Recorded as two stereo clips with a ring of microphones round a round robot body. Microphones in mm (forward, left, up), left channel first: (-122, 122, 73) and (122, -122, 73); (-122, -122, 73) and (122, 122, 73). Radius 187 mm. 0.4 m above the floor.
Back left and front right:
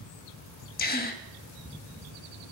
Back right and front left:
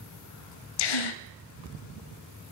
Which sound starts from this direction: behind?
A gasp, at 0.8 s.